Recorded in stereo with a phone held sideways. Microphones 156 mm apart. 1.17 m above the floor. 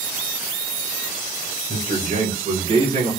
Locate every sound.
1.7 s a man speaking: 75° right (ahead or behind), 2 m; by 3.1 s 40° right (ahead or behind), 1.8 m